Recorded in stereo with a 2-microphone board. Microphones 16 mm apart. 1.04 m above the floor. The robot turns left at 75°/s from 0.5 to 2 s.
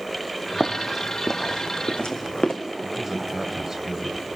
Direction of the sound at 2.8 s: 20° right (ahead or behind).